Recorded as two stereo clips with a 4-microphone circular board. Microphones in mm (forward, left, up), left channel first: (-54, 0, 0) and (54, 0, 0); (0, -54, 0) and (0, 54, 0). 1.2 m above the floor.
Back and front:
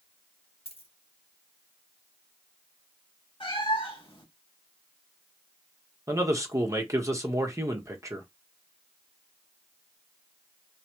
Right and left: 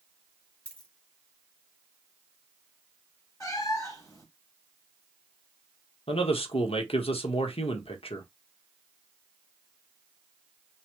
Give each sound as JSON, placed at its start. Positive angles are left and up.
{"t": 0.7, "sound": "a dropped coin", "azimuth_deg": -170, "distance_m": 1.7}
{"t": 3.4, "sound": "a cat meowing", "azimuth_deg": -145, "distance_m": 2.0}
{"t": 6.1, "sound": "a man speaking", "azimuth_deg": -60, "distance_m": 1.2}